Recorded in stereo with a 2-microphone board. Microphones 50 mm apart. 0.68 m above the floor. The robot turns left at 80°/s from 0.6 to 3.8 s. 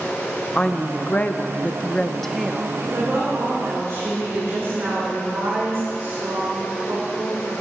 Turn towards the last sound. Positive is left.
turn(degrees=-110)